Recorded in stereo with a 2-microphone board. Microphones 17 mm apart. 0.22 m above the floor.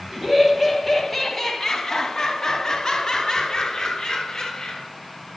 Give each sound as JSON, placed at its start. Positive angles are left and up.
{"t": 0.1, "sound": "laughter", "side_deg": -25, "distance_m": 1.3}